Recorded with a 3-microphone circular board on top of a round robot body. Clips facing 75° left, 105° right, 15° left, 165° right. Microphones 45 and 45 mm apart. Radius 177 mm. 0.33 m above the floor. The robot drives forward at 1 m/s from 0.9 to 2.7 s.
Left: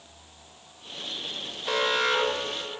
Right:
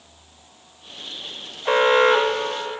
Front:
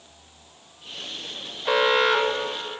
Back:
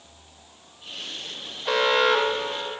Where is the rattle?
No rattle in this recording.